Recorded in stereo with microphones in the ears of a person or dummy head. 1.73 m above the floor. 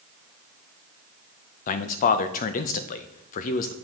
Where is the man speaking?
45° left (ahead or behind), 0.6 m.